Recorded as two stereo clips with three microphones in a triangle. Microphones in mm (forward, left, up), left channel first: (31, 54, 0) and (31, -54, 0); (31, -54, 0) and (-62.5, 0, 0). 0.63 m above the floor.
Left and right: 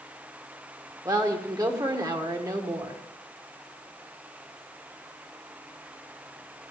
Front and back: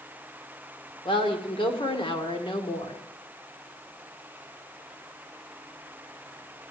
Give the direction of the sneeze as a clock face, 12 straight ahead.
I don't hear a sneeze.